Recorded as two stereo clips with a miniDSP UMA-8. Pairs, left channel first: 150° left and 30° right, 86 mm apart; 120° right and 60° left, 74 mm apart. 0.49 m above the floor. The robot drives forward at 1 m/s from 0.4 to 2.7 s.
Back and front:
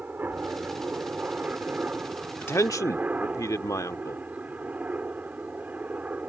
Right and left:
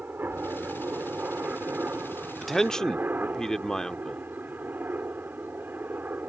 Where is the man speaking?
150° left; by 4.2 s 165° left.